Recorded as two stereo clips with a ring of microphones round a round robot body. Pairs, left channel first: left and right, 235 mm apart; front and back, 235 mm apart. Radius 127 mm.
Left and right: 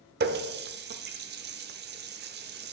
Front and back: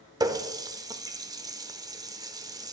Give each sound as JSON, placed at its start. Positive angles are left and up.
{"t": 0.2, "sound": "a running tap", "azimuth_deg": -110, "distance_m": 0.6}